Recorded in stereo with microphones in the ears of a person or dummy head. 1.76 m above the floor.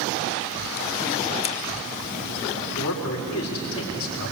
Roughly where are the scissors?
Left.